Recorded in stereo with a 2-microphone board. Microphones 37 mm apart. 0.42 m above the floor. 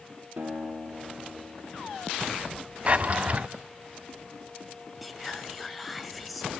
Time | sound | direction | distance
0.4 | a guitar | 80° right | 6.5 m
2.9 | a drawer | 35° right (ahead or behind) | 0.6 m
5.0 | whispering | centre (ahead or behind) | 1.9 m